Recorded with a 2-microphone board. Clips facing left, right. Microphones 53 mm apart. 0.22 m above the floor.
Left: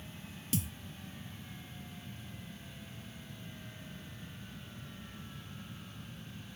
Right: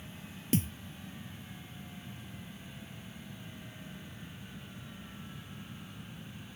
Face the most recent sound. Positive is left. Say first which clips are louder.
# right 6 dB
turn(degrees=-40)  # may be behind; listen again after turning